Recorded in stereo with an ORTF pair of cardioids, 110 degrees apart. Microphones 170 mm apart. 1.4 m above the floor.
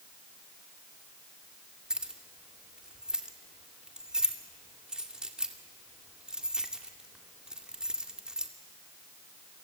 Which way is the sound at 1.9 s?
5° right.